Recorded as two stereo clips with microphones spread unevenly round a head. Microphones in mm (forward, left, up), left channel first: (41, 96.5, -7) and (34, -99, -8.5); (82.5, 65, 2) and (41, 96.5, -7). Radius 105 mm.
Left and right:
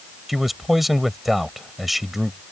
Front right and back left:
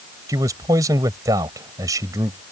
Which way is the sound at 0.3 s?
Straight behind.